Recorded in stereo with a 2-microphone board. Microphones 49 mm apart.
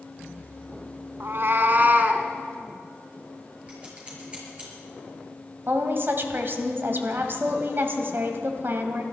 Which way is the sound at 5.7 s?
45° right (ahead or behind).